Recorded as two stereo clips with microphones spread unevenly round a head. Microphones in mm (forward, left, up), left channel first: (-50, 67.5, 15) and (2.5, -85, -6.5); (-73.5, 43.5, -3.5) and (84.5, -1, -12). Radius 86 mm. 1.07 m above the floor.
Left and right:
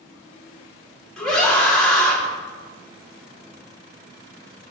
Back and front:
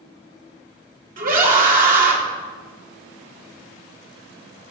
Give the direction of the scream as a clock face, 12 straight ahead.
11 o'clock.